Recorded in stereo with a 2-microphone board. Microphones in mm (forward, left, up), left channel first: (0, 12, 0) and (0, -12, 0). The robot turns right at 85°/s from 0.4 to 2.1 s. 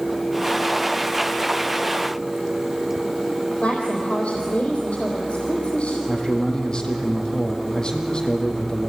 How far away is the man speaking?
About 4 m.